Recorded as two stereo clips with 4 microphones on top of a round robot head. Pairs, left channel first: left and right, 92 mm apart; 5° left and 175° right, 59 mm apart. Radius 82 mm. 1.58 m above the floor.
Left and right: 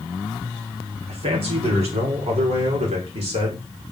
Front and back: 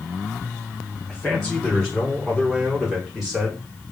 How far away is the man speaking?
About 6 m.